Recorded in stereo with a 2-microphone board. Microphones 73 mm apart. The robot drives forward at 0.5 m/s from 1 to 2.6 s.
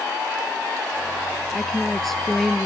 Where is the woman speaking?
5° left (ahead or behind).